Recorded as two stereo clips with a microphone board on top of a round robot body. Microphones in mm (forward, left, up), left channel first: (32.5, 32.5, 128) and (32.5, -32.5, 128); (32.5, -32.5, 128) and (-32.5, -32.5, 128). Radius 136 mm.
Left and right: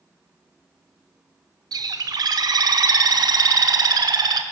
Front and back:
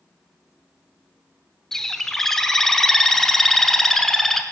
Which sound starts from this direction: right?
A bird, at 1.7 s.